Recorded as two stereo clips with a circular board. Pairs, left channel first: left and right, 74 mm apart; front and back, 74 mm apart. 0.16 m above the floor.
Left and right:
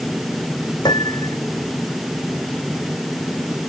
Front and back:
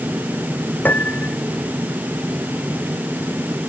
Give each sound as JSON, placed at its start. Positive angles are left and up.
{"t": 0.8, "sound": "a piano", "azimuth_deg": 65}